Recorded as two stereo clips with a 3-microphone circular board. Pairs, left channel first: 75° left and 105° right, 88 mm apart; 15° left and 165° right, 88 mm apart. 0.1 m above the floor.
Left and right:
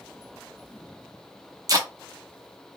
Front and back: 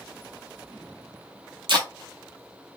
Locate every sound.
1.7 s tape being pulled: 145° right, 0.7 m